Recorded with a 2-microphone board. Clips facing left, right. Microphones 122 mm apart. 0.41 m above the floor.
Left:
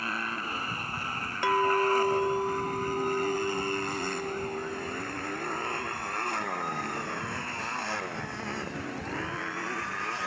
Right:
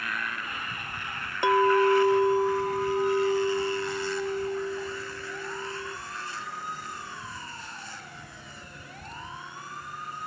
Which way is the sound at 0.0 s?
35° left (ahead or behind).